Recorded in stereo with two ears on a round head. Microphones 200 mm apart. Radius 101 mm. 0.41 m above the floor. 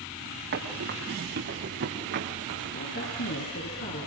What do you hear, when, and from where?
0.5 s running footsteps: 50° right (ahead or behind), 7 m; by 2.8 s 60° right (ahead or behind), 6 m
2.7 s a woman speaking: 55° left (ahead or behind), 6 m